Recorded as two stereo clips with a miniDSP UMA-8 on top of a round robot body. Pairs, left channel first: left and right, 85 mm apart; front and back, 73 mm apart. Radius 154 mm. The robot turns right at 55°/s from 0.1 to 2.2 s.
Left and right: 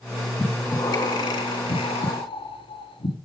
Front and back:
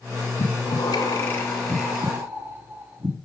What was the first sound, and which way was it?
Breathing, 15° left.